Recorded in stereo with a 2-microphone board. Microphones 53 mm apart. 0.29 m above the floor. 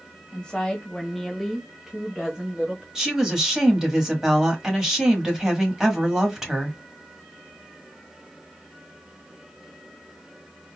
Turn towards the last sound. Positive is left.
turn(degrees=-10)  # may be behind; listen again after turning